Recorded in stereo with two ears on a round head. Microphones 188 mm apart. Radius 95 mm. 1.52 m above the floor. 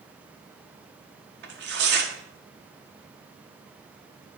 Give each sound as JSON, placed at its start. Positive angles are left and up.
{"t": 1.4, "sound": "tearing paper", "side_deg": -50, "distance_m": 1.6}